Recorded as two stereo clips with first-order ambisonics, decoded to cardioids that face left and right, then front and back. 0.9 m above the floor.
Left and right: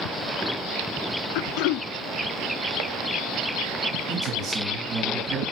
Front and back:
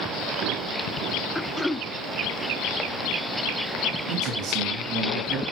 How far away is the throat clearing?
About 0.7 m.